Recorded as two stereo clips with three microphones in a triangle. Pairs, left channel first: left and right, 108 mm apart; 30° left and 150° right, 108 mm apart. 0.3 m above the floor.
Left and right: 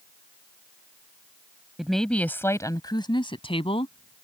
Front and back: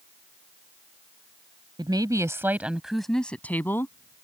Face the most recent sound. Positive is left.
turn(degrees=90)